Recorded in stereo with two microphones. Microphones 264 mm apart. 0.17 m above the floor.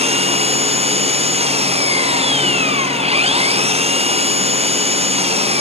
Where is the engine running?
20° right (ahead or behind).